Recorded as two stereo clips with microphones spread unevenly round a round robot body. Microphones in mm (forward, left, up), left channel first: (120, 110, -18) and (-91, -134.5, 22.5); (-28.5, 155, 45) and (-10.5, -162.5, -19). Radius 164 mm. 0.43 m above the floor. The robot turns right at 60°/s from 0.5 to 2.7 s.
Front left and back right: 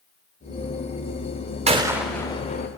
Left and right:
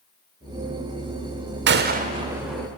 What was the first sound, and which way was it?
A gunshot, 60° right.